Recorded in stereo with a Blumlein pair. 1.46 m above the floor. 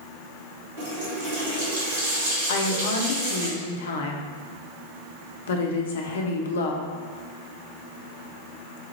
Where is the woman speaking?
60° left, 0.7 m.